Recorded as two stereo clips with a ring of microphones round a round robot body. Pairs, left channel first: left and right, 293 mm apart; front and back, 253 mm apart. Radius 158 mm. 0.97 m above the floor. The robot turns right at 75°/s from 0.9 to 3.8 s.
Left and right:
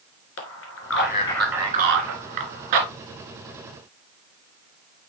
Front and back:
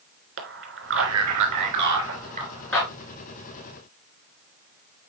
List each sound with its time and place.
0.4 s a man speaking: 140° left, 3 m; by 2.9 s 70° right, 3 m